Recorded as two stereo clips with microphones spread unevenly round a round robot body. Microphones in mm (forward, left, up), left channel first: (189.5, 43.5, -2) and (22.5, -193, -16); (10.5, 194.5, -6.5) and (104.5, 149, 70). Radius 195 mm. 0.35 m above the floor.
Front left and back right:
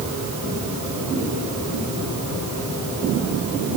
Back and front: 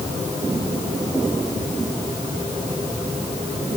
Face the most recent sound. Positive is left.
No sound to turn to.